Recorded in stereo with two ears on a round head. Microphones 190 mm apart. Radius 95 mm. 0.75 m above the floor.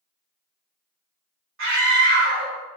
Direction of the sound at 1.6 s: 65° right (ahead or behind).